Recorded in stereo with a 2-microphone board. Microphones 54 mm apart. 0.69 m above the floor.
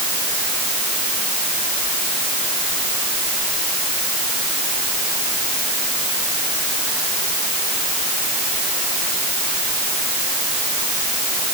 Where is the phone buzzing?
No phone buzzing in this recording.